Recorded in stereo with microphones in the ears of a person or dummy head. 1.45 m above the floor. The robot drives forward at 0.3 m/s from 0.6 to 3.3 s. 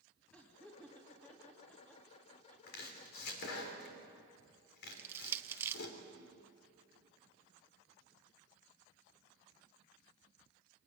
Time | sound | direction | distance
0.3 | laughter | 10° left (ahead or behind) | 2.5 m
2.7 | chopping | 65° left (ahead or behind) | 3 m
4.9 | crushing | 10° right (ahead or behind) | 0.7 m